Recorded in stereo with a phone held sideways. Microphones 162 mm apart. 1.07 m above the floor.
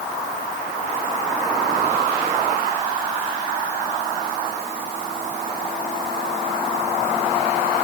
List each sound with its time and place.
Only background noise.